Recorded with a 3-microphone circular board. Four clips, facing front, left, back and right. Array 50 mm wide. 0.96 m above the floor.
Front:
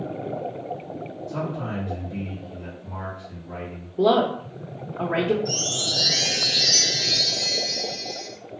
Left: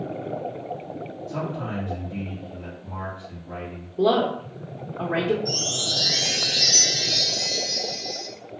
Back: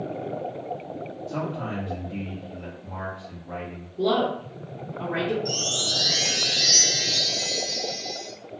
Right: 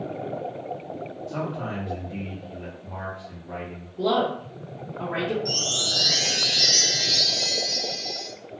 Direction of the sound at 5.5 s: 145° right.